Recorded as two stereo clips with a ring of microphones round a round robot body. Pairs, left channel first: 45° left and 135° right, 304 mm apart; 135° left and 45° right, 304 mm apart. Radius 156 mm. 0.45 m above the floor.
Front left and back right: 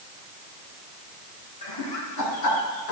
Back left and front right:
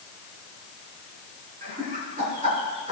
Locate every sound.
1.6 s laughter: 20° left, 5 m; by 2.9 s 25° left, 5 m